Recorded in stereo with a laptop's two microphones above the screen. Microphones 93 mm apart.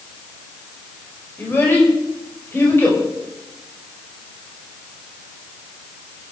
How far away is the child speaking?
About 4.5 m.